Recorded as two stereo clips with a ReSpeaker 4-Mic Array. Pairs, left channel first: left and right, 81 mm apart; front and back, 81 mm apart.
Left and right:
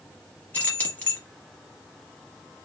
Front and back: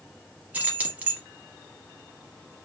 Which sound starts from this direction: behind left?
Keys jangling, at 0.5 s.